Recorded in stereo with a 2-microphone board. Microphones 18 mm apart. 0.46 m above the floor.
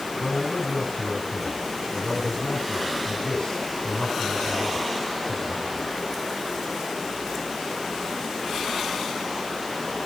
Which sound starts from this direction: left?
A man speaking, at 0.2 s.